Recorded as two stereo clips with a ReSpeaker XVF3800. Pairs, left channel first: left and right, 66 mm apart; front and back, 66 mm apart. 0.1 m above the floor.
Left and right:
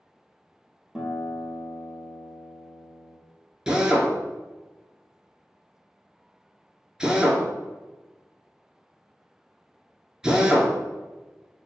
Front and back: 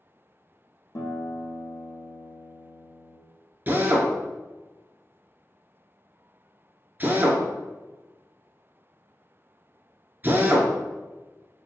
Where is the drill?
160° right, 0.5 m.